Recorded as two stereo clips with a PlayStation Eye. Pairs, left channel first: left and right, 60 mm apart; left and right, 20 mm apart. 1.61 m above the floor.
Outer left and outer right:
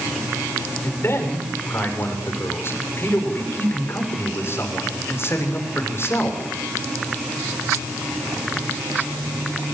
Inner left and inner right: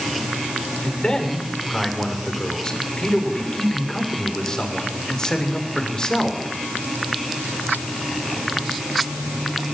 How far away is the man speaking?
About 7 m.